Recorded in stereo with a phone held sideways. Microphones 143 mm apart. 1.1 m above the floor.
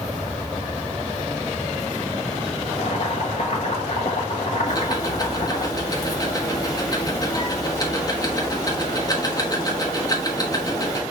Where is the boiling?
60° left (ahead or behind), 1.1 m.